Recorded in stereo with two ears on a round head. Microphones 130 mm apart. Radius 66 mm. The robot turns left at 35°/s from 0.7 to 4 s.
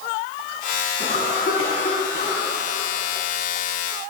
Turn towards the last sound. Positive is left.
turn(degrees=-20)